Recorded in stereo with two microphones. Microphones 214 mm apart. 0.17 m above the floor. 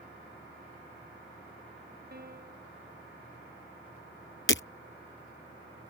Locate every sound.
2.1 s a piano: 45° right (ahead or behind)
4.5 s breaking glass: 65° left (ahead or behind)